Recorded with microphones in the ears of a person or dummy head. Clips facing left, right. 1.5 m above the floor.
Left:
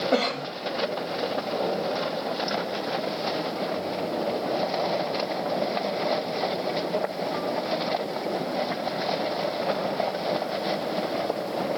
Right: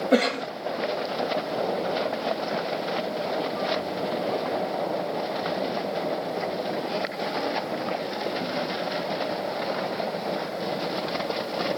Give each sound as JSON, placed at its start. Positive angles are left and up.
{"t": 0.1, "sound": "a cough", "side_deg": -20, "distance_m": 0.7}